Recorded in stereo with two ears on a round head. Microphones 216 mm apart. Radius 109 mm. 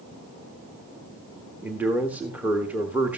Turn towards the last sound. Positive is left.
turn(degrees=-5)  # may be behind; listen again after turning